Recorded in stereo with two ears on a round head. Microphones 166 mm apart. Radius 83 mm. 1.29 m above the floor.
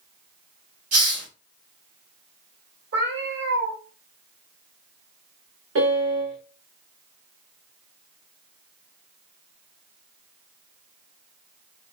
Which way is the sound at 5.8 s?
80° right.